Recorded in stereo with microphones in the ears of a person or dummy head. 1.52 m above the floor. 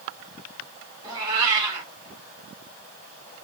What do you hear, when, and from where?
1.0 s a cat meowing: 20° right (ahead or behind), 2 m